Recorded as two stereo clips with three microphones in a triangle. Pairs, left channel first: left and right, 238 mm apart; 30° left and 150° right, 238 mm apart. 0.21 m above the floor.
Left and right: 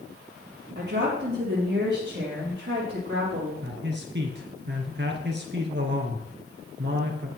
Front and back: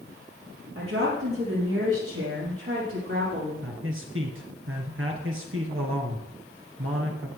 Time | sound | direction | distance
0.8 | a woman speaking | 130° right | 6.5 m
3.6 | a man speaking | 130° right | 2.5 m